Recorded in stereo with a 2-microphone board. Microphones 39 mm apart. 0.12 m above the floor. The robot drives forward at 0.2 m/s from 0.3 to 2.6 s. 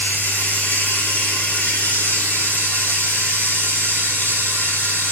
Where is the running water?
65° left (ahead or behind), 3 m; by 5.1 s 70° left (ahead or behind), 3 m.